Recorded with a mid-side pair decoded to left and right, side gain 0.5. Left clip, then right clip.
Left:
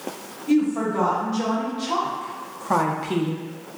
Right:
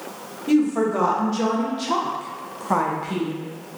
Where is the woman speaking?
55° right, 1.4 m; by 3.5 s 60° left, 0.5 m.